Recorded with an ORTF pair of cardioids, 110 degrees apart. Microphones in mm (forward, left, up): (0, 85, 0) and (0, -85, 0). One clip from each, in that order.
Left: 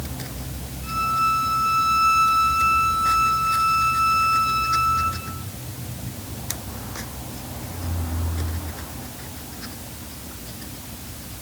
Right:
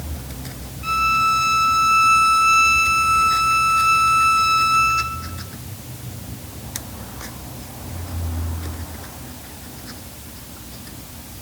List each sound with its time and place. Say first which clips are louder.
0.8 s a violin: right 4 dB; 65° right, 4 m